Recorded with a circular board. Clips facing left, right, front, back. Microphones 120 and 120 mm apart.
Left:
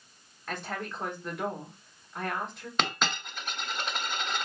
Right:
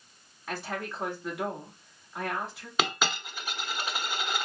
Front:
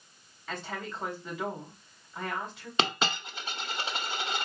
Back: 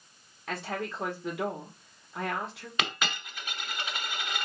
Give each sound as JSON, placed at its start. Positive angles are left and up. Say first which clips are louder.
{"t": 0.5, "sound": "a woman speaking", "louder": "right 1 dB, back 3 dB", "azimuth_deg": -175, "distance_m": 2.5}
{"t": 2.8, "sound": "a dropped coin", "louder": "right 1 dB, front 4 dB", "azimuth_deg": -15, "distance_m": 0.8}